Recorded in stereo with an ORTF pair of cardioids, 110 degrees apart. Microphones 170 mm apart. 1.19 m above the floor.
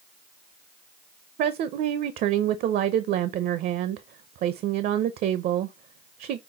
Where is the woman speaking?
65° right, 0.6 m.